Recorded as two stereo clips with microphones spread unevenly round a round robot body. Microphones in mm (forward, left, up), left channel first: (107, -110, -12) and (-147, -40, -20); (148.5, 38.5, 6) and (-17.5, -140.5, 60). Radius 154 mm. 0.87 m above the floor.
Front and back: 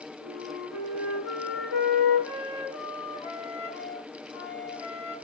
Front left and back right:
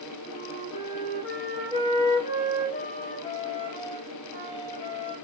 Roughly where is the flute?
Ahead.